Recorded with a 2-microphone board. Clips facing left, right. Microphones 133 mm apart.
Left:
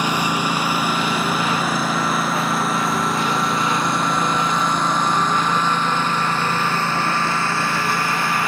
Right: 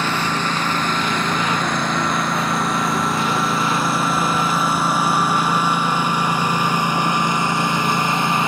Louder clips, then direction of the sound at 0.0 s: Left 1 dB; 15° left (ahead or behind).